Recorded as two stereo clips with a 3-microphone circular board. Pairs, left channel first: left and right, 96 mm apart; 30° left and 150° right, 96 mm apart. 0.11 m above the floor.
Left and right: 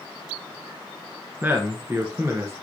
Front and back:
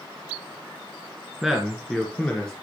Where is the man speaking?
70° right, 1.4 m; by 2.5 s 45° right, 1.7 m.